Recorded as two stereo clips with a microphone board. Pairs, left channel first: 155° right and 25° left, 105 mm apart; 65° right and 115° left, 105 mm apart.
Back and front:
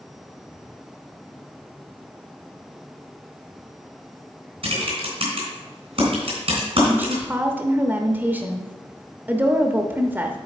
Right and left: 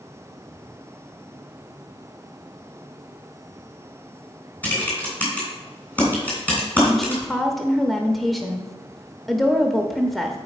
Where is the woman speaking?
15° left, 0.8 m.